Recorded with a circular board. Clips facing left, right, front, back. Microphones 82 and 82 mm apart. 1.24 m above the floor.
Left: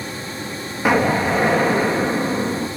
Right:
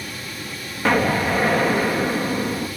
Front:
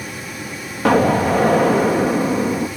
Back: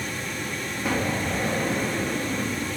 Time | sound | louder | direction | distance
0.8 | an explosion | left 2 dB, front 13 dB | 10° left | 1.2 m